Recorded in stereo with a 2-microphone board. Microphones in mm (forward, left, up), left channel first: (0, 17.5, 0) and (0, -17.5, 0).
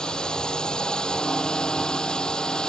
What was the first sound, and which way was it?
A drone, 25° left (ahead or behind).